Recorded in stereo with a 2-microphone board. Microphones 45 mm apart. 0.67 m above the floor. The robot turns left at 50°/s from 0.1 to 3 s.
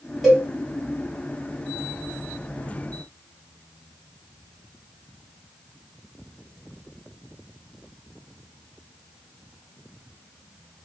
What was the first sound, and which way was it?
A cowbell, centre (ahead or behind).